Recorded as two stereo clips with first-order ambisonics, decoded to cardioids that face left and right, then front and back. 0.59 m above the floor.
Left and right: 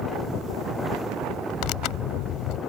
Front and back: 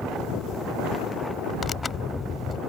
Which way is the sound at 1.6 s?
70° left.